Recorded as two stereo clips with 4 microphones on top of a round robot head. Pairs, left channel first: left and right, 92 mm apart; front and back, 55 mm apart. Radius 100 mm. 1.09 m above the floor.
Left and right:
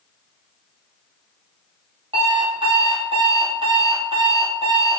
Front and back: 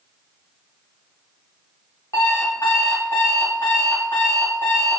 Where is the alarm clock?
50° right, 1.1 m.